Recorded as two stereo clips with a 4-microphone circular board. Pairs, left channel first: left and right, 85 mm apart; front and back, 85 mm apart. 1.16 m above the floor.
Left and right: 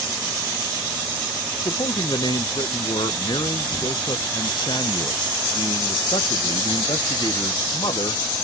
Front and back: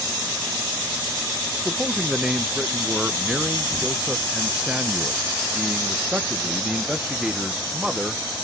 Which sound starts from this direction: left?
A man speaking, at 1.6 s.